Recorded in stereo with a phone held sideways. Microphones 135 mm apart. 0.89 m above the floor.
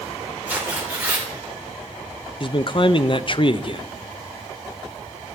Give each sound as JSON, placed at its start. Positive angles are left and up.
{"t": 0.5, "sound": "tearing paper", "side_deg": -15, "distance_m": 3.0}
{"t": 2.4, "sound": "a man speaking", "side_deg": 40, "distance_m": 0.5}